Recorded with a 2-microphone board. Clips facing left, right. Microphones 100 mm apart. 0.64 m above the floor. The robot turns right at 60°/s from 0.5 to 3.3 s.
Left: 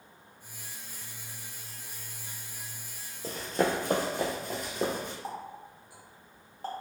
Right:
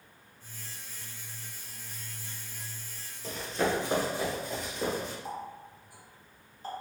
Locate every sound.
3.2 s running footsteps: 40° left (ahead or behind), 0.8 m; by 5.1 s 55° left (ahead or behind), 1.7 m
5.2 s a running tap: 75° left (ahead or behind), 1.1 m